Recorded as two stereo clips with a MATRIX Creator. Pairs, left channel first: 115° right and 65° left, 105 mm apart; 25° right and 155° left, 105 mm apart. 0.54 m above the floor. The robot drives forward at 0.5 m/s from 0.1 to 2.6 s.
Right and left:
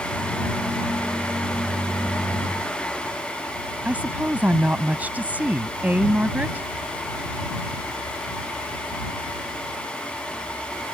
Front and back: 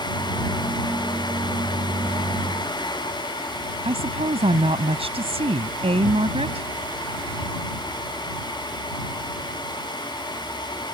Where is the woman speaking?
140° left.